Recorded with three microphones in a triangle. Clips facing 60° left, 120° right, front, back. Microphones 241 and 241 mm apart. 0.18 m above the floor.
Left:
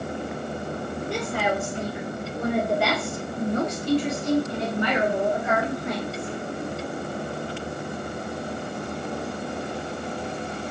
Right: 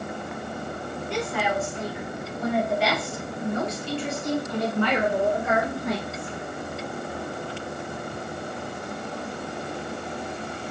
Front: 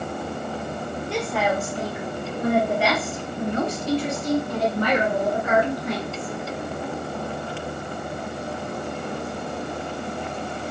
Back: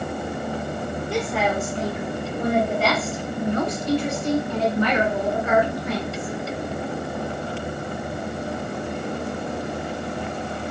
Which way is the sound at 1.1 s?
95° left.